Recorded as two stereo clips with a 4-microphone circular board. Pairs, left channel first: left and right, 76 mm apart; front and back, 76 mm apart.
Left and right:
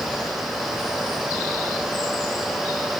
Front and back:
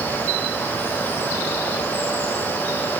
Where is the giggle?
No giggle in this recording.